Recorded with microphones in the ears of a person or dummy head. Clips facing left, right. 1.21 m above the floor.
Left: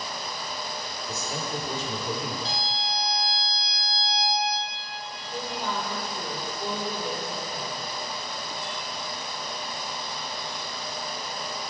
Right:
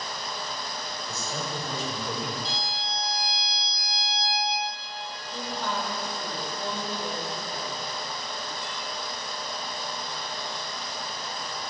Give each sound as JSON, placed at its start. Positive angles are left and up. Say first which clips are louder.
{"t": 1.1, "sound": "a man speaking", "louder": "left 2 dB", "side_deg": 70, "distance_m": 3.5}
{"t": 2.5, "sound": "a violin", "louder": "left 2 dB", "side_deg": 55, "distance_m": 4.0}
{"t": 5.3, "sound": "a woman speaking", "louder": "left 1 dB", "side_deg": 40, "distance_m": 3.5}